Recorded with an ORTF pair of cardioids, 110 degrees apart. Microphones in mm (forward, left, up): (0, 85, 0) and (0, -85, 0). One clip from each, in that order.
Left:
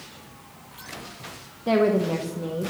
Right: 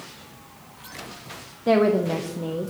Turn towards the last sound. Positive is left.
turn(degrees=-10)